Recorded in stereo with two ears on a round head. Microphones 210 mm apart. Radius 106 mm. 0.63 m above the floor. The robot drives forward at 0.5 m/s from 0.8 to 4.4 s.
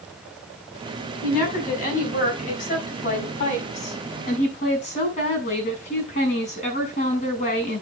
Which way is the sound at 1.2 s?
40° left (ahead or behind).